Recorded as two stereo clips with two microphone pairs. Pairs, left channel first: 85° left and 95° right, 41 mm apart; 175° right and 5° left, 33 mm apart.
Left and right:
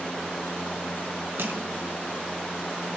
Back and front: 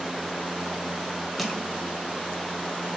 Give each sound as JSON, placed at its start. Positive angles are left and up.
{"t": 1.4, "sound": "crushing", "azimuth_deg": -90, "distance_m": 1.5}